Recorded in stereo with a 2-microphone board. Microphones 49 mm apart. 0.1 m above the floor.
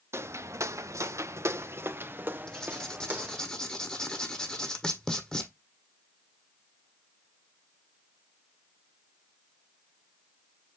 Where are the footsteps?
65° right (ahead or behind), 0.9 m; by 3.5 s 25° right (ahead or behind), 1.9 m.